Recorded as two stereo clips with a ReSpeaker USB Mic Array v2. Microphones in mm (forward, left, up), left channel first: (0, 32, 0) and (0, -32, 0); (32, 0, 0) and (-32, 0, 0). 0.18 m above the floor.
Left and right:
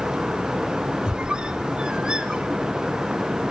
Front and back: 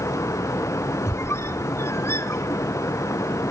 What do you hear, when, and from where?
1.1 s a squeak: 20° right, 0.9 m